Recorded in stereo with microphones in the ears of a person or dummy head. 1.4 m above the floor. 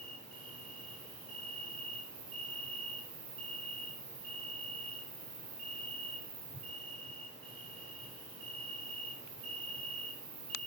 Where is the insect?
35° right (ahead or behind), 6.5 m.